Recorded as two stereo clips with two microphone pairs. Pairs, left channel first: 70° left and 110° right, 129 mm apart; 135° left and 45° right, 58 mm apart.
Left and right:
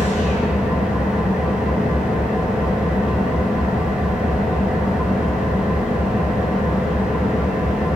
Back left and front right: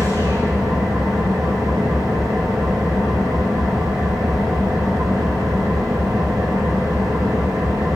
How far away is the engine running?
About 7 m.